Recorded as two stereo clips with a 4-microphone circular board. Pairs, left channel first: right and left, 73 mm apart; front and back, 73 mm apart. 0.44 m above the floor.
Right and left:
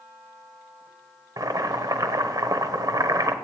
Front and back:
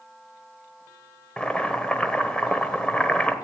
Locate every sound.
1.4 s boiling: 75° left, 1.1 m